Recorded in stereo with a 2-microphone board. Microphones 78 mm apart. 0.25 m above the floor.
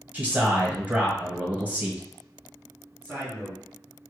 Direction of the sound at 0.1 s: 20° right (ahead or behind).